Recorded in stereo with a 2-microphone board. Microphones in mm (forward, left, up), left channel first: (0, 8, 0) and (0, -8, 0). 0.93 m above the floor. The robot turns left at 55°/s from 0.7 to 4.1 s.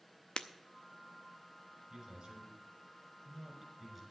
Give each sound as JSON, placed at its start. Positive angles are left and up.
{"t": 0.4, "sound": "breaking glass", "side_deg": 85, "distance_m": 0.6}
{"t": 1.9, "sound": "a man speaking", "side_deg": -55, "distance_m": 5.5}